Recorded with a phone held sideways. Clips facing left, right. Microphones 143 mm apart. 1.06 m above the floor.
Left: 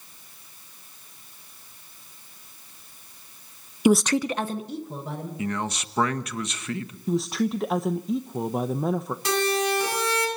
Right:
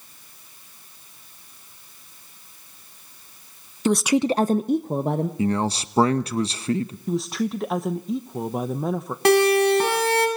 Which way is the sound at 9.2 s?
70° right (ahead or behind).